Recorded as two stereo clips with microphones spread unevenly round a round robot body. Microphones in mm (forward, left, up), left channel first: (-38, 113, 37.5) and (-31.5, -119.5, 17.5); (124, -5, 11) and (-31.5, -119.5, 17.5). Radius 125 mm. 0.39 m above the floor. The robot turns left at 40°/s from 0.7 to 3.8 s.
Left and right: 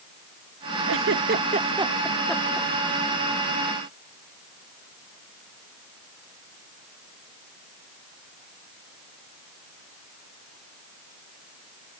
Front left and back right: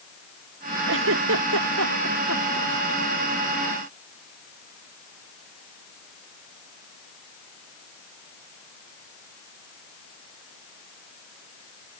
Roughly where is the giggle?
Behind right.